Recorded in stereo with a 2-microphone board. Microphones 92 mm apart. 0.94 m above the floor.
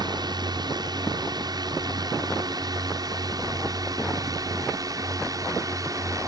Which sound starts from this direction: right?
A drone, at 0.0 s.